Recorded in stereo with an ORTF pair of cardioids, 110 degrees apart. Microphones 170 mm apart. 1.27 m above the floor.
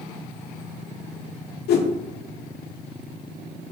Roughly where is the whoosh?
Left.